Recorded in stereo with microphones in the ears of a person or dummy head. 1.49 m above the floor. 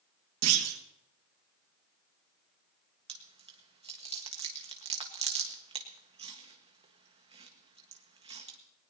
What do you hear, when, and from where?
0.4 s a clunk: 80° right, 1.6 m
3.1 s chewing: 30° right (ahead or behind), 1.5 m